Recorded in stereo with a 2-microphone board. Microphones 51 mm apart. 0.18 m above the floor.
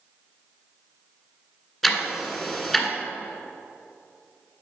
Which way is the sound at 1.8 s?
5° left (ahead or behind).